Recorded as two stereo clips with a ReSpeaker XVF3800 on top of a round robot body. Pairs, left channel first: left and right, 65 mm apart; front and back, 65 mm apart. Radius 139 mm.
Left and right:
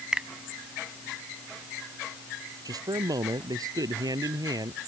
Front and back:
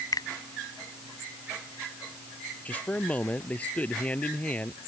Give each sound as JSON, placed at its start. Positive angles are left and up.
{"t": 0.1, "sound": "a finger snap", "azimuth_deg": -10}
{"t": 2.6, "sound": "a man speaking", "azimuth_deg": -70}